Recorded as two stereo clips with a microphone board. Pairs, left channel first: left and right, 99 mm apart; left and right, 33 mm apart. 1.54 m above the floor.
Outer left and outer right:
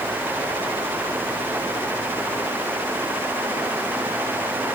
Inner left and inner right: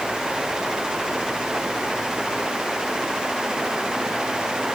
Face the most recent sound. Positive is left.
No sound to turn to.